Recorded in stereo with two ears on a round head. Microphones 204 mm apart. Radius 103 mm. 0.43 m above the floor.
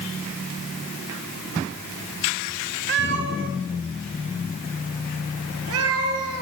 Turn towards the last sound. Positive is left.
turn(degrees=-80)